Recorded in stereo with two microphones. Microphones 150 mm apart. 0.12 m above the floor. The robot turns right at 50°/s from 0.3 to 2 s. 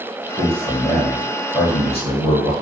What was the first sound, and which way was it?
A man speaking, 5° left.